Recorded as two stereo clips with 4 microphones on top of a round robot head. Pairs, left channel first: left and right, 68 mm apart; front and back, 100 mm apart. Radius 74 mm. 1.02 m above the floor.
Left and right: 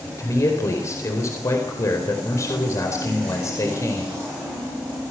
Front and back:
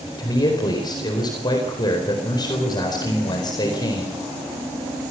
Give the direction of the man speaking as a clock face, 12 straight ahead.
10 o'clock.